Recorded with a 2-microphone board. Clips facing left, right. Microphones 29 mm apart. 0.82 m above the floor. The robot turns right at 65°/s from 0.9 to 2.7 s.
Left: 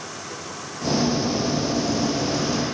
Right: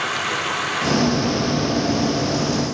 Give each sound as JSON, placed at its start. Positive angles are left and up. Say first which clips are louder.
{"t": 0.0, "sound": "running water", "louder": "right 12 dB", "azimuth_deg": -90}